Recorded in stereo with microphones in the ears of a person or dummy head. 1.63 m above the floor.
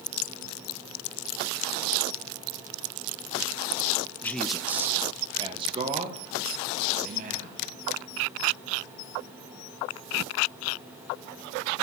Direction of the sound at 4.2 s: 20° left (ahead or behind).